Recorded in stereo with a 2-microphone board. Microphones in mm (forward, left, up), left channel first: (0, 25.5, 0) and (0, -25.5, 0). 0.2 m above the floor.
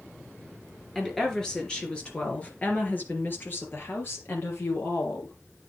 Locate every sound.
0.9 s a woman speaking: 5° left (ahead or behind), 3.5 m; by 5.3 s 55° left (ahead or behind), 4.5 m